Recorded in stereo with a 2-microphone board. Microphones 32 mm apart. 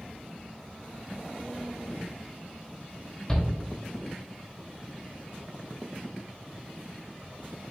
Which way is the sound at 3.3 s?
20° left (ahead or behind).